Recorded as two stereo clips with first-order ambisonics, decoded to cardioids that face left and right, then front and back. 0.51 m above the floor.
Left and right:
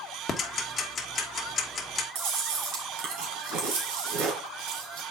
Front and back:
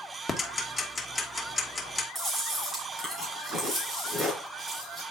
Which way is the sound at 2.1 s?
100° right.